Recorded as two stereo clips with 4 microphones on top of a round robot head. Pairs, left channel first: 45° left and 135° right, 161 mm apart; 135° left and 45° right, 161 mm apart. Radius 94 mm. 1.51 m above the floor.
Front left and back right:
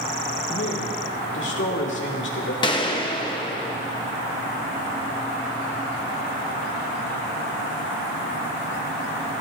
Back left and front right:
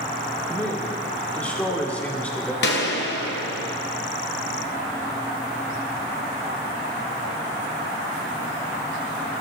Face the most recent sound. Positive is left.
turn(degrees=110)